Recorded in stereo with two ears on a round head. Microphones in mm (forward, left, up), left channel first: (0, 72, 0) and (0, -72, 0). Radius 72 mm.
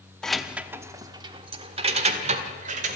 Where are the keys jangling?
5° left (ahead or behind), 1.0 m; by 3.0 s 50° right (ahead or behind), 2.5 m.